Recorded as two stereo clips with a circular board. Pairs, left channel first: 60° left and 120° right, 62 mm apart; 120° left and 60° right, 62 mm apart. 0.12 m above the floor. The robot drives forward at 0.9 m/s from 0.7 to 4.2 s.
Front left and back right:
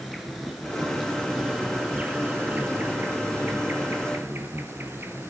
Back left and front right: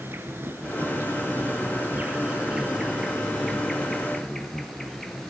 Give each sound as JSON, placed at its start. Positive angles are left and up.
{"t": 0.0, "sound": "an insect", "azimuth_deg": -30, "distance_m": 2.0}